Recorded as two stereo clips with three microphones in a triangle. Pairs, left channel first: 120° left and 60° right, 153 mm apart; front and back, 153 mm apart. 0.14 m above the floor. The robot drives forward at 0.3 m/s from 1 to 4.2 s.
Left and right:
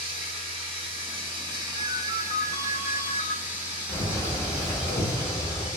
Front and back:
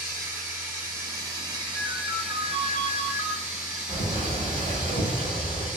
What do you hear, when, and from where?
0.0 s running water: 105° right, 0.9 m; by 5.8 s 145° right, 1.5 m
1.7 s a ringtone: 105° left, 0.8 m; by 3.4 s 135° left, 1.1 m
3.9 s a bird: 175° right, 0.9 m